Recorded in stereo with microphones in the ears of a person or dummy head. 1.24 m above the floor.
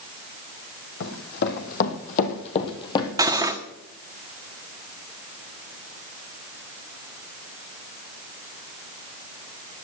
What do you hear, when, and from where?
1.0 s running footsteps: 60° left (ahead or behind), 2.5 m; by 3.1 s 25° left (ahead or behind), 2 m
3.2 s cutlery clinking: 15° right (ahead or behind), 1.1 m